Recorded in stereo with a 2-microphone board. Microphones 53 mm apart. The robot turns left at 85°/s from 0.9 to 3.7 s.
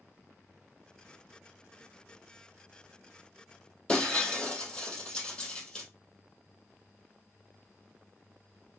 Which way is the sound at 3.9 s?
15° left (ahead or behind).